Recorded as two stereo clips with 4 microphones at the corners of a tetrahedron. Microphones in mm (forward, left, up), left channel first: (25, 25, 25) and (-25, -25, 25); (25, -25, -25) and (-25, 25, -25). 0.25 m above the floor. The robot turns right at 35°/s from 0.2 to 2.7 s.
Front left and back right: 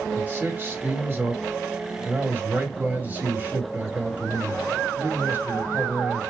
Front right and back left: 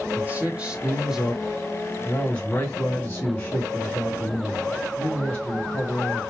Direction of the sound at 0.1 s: Straight behind.